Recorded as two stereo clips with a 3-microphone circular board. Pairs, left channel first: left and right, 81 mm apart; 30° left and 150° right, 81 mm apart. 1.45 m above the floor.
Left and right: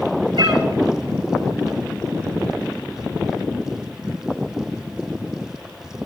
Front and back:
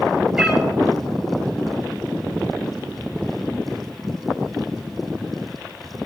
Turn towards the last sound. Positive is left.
turn(degrees=-70)